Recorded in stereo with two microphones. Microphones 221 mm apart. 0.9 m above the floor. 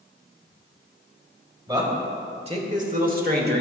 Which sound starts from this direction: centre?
A man speaking, at 1.7 s.